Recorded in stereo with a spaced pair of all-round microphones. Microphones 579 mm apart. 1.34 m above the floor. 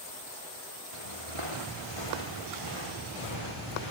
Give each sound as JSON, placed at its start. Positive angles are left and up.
{"t": 0.9, "sound": "footsteps", "side_deg": -60, "distance_m": 4.0}